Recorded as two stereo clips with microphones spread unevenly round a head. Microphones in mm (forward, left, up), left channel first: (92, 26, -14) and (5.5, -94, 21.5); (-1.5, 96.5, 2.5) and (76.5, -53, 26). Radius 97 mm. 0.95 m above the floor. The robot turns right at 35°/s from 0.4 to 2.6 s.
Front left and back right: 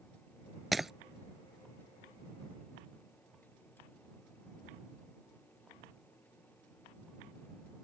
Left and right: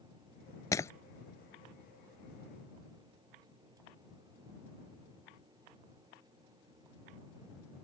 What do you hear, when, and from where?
0.7 s breaking glass: 175° right; by 0.9 s 170° right